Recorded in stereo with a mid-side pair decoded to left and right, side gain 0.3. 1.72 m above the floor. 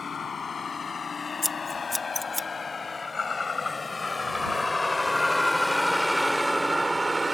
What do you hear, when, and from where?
0.0 s a vehicle: 60° left; by 7.3 s 30° right
1.4 s scissors: 20° left